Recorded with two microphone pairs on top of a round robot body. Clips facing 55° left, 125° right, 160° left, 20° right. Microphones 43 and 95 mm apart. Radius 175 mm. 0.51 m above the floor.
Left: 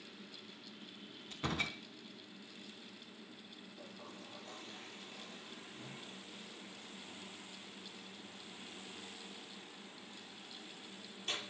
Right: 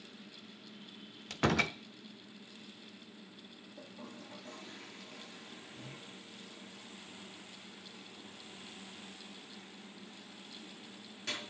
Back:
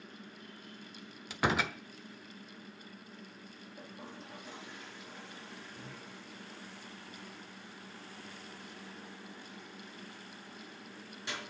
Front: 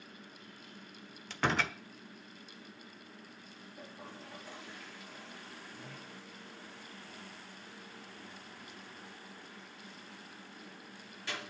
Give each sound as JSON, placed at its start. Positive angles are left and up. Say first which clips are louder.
{"t": 1.3, "sound": "a door slam", "louder": "right 8 dB, back 1 dB", "azimuth_deg": -120, "distance_m": 1.2}
{"t": 3.8, "sound": "a toilet flushing", "louder": "right 4 dB, back 1 dB", "azimuth_deg": -130, "distance_m": 6.5}